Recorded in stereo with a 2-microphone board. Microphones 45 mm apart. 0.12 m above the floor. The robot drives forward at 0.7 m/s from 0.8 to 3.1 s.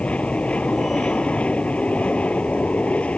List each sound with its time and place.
0.0 s an aircraft: 30° left (ahead or behind)